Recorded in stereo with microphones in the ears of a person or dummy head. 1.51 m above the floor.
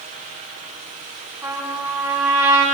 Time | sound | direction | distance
1.4 | a trumpet | 5° right (ahead or behind) | 7.5 m